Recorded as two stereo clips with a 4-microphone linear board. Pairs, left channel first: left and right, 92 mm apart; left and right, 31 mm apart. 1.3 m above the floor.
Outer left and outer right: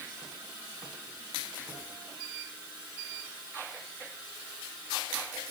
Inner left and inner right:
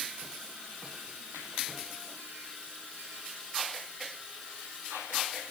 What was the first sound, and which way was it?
Only background noise.